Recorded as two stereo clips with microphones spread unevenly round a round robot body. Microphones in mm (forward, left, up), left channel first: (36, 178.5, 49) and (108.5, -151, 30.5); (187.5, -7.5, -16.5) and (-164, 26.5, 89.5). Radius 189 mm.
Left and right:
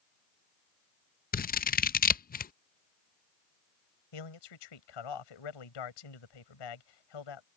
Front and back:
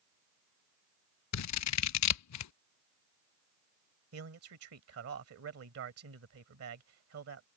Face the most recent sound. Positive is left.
turn(degrees=120)